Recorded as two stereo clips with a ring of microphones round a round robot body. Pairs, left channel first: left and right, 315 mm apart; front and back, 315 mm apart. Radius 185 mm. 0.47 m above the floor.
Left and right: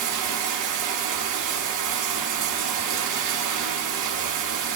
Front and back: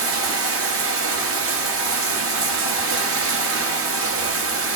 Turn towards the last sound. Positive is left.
turn(degrees=-135)